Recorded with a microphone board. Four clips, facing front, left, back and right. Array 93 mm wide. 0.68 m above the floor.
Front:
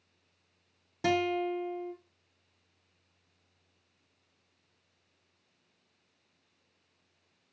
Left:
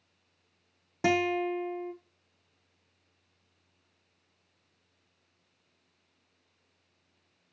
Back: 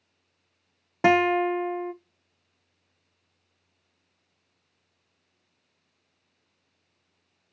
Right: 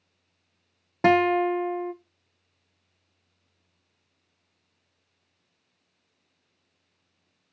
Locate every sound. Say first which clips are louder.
1.0 s a guitar: right 7 dB, back 9 dB; 140° right, 0.7 m